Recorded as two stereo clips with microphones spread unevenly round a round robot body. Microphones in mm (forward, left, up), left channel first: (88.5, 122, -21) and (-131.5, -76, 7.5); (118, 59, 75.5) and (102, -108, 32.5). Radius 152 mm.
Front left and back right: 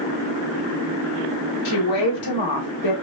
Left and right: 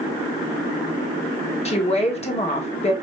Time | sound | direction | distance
1.6 | a woman speaking | 30° left | 1.9 m